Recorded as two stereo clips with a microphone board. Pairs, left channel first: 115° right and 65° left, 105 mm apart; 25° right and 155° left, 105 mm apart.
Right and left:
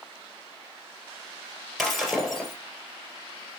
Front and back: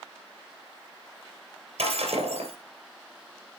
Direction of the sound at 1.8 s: 155° left.